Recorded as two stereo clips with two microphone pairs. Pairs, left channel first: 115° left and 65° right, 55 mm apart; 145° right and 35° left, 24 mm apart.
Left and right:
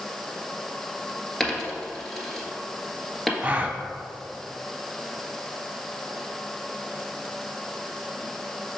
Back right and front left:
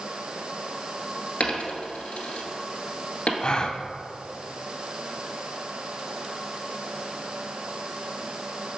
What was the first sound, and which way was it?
A dropped coin, 165° right.